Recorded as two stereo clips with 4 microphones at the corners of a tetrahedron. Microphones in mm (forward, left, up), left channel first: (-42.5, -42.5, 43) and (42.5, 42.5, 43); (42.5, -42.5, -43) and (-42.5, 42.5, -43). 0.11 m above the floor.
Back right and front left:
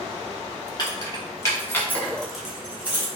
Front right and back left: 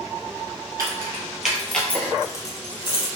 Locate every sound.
0.8 s keys jangling: 170° right, 1.1 m; by 3.1 s 20° right, 1.2 m